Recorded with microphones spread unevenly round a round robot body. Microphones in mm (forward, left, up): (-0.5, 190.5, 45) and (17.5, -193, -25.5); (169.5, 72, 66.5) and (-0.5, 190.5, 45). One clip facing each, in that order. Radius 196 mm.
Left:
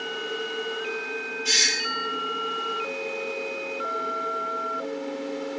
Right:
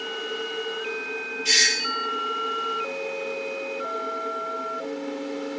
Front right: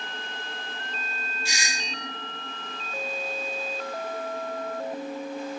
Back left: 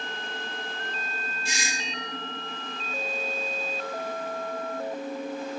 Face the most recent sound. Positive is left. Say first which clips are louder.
# right 1 dB, back left 1 dB
turn(degrees=-40)